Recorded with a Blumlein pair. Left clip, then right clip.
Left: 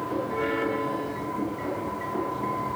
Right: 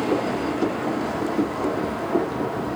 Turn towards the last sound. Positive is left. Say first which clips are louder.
# right 4 dB
turn(degrees=-60)